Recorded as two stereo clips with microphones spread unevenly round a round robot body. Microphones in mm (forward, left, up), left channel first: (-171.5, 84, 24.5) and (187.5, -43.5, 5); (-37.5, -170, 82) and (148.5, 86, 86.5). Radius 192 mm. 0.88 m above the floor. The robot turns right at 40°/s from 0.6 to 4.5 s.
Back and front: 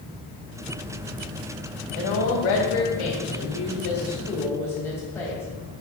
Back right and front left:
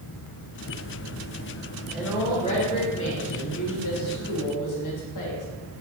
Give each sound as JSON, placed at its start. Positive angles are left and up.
{"t": 1.9, "sound": "a woman speaking", "azimuth_deg": 140, "distance_m": 2.0}